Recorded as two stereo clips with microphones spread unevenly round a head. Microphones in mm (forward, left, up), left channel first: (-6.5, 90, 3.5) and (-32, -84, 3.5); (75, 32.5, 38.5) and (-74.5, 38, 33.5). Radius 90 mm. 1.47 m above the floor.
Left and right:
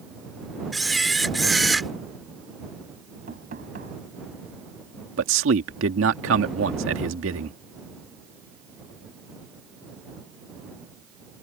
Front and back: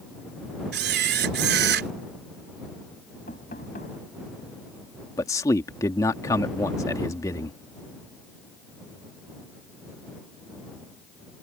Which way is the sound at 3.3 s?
50° right.